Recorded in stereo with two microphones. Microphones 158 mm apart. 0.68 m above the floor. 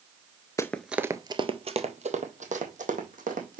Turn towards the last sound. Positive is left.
turn(degrees=-60)  # may be behind; listen again after turning